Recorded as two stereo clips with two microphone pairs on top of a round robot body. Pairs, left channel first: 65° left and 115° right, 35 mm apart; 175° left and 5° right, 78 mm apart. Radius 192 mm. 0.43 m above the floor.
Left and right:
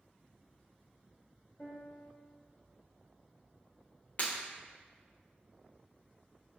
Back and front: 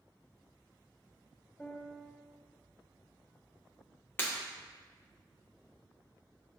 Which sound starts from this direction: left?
Breaking glass, at 4.2 s.